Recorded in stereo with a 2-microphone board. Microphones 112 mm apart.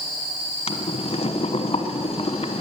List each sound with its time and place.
0.7 s boiling: 65° left (ahead or behind), 1.1 m